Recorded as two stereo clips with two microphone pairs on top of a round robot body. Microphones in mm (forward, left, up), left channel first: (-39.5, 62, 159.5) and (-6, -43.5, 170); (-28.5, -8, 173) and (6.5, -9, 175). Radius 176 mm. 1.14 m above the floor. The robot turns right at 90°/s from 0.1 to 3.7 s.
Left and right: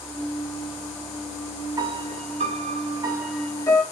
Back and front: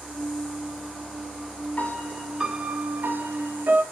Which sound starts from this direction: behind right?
A piano, at 1.8 s.